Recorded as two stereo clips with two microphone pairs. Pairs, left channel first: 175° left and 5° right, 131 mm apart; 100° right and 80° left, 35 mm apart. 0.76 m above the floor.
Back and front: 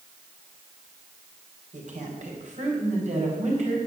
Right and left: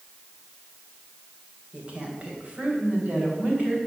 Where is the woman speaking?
20° left, 2.5 m; by 3.8 s 30° left, 4 m.